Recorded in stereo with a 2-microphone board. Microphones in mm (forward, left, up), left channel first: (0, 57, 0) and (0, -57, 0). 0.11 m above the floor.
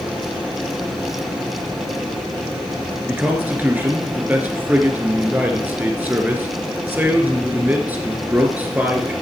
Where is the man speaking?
15° right (ahead or behind), 1.2 m.